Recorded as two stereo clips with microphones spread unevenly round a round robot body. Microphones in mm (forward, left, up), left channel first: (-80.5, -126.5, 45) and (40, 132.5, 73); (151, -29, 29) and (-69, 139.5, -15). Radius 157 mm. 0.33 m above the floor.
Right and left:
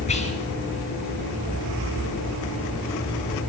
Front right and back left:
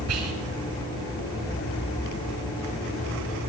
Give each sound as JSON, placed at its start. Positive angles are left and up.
{"t": 0.1, "sound": "whispering", "azimuth_deg": 180, "distance_m": 3.0}